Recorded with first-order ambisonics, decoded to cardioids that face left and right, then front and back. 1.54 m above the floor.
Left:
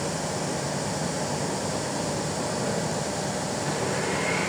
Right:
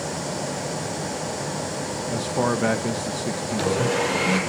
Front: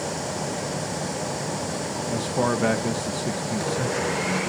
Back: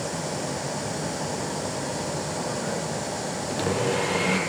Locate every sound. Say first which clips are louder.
2.1 s a man speaking: right 5 dB, front 5 dB; 45° right, 1.6 m
3.5 s a blender: right 9 dB, back 3 dB; 130° right, 8 m